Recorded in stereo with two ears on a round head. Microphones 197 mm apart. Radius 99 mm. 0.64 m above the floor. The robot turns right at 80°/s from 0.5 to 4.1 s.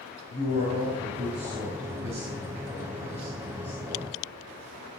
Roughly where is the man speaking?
Behind left.